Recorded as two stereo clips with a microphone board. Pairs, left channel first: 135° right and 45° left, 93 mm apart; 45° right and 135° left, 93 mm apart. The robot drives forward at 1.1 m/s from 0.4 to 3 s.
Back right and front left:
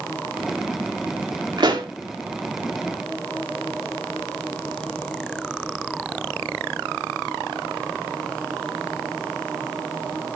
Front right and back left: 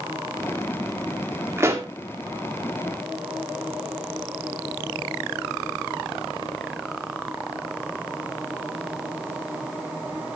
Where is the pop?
75° left, 2.0 m; by 1.9 s 85° left, 1.9 m.